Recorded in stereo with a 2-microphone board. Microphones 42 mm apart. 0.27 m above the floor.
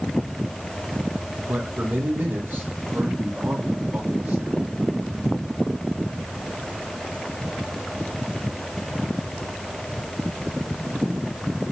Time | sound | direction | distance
1.5 | a man speaking | 50° right (ahead or behind) | 6 m